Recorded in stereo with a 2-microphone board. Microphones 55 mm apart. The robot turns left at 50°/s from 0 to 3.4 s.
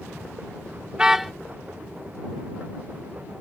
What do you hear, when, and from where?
0.9 s a car horn: 15° right (ahead or behind); by 1.3 s 5° left (ahead or behind)